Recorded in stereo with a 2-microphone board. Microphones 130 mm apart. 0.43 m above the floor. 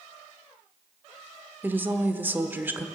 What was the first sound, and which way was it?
A woman speaking, 15° right (ahead or behind).